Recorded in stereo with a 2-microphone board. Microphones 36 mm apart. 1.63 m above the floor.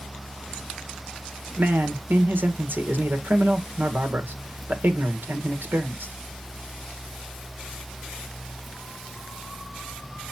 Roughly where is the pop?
I don't hear a pop.